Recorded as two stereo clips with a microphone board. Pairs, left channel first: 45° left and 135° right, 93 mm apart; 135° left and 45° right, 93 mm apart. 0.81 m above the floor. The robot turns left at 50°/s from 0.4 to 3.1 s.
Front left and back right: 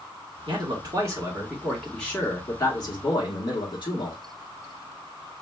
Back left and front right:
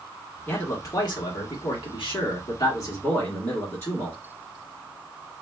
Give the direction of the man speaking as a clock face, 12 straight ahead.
5 o'clock.